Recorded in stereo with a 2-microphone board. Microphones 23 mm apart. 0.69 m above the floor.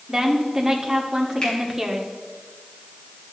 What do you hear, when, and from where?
0.1 s a woman speaking: 20° right (ahead or behind), 1.5 m
1.4 s a finger snap: 35° left (ahead or behind), 5 m